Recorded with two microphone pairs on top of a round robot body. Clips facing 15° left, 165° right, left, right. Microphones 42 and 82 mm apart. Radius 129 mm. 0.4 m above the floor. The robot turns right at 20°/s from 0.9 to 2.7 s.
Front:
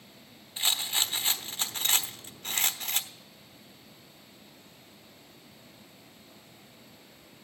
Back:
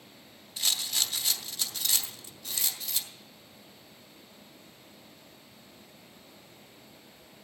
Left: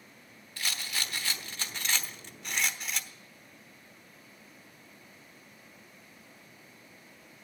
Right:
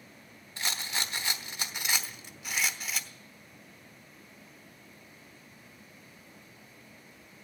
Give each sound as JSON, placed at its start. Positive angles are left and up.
{"t": 0.6, "sound": "a rattle", "azimuth_deg": -45, "distance_m": 1.0}
{"t": 2.0, "sound": "keys jangling", "azimuth_deg": -175, "distance_m": 0.8}